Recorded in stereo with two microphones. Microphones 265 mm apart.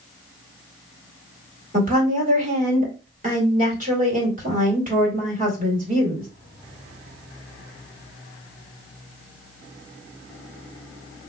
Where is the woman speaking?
30° right (ahead or behind), 1.9 m.